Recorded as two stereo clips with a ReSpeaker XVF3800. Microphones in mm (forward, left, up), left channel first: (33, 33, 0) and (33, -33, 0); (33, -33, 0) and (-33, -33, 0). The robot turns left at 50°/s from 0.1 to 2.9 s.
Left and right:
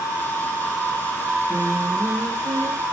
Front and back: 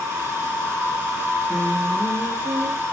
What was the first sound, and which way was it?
Singing, 125° right.